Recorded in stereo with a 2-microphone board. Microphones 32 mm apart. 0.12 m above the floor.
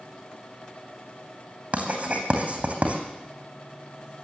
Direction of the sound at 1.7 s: 45° right (ahead or behind).